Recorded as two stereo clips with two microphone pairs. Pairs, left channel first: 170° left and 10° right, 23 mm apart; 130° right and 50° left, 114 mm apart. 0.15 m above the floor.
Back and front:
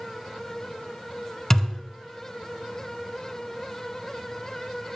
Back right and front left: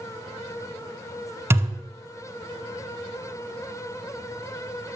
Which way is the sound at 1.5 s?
105° left.